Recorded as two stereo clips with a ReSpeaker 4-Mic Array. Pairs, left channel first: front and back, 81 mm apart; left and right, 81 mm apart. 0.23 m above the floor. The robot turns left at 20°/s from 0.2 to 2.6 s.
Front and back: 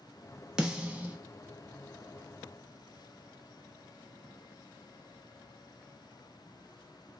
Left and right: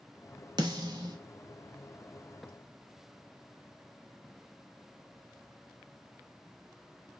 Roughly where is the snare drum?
Right.